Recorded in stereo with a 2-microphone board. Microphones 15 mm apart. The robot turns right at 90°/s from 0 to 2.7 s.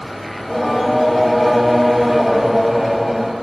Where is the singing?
15° left (ahead or behind), 1.0 m; by 3.3 s 25° right (ahead or behind), 1.0 m.